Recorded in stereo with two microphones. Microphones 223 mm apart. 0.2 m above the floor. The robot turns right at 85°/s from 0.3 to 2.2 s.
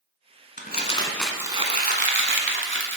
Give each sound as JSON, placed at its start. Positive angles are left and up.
{"t": 0.6, "sound": "crumpling", "azimuth_deg": 120, "distance_m": 0.9}